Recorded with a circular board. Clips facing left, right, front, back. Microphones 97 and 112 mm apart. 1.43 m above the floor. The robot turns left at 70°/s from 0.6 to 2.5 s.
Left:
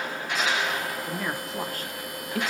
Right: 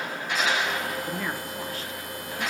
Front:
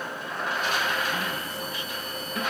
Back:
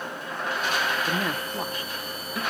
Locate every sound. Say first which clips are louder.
1.1 s a woman speaking: even, back 3 dB; 175° right, 1.1 m; by 2.4 s 90° left, 1.1 m